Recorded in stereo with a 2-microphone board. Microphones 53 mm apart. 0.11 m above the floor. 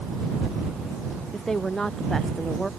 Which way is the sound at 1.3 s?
5° left (ahead or behind).